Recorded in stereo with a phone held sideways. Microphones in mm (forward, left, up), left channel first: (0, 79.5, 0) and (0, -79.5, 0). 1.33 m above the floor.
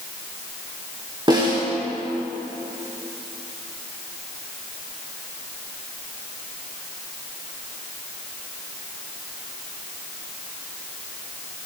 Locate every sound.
1.3 s a snare drum: 30° right (ahead or behind), 3.5 m